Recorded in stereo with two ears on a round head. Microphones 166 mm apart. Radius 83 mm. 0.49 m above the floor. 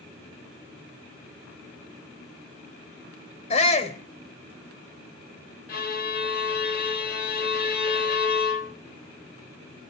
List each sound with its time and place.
3.5 s a shout: 35° left (ahead or behind), 3 m
5.7 s a violin: 55° left (ahead or behind), 2.5 m